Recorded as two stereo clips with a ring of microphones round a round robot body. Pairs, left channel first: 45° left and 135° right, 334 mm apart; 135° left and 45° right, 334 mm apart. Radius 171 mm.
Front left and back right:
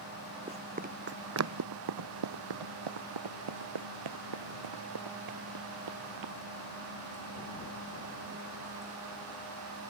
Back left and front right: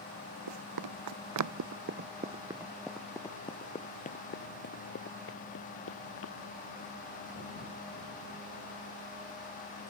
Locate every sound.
0.5 s running footsteps: 60° right; by 6.3 s 175° right